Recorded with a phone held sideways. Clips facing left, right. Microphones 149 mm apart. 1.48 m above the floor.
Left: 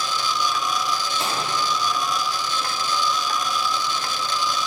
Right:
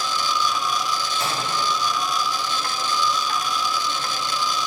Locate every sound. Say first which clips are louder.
1.2 s a microwave: even; 25° left (ahead or behind), 3 m